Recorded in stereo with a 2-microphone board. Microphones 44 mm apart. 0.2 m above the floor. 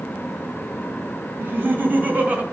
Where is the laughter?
55° right (ahead or behind), 2.0 m; by 2.4 s 40° right (ahead or behind), 1.6 m.